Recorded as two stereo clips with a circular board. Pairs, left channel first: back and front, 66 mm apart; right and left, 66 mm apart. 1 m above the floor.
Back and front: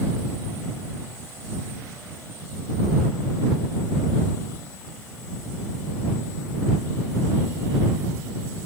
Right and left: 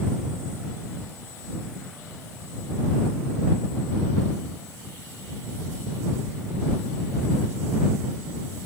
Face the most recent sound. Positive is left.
No sound to turn to.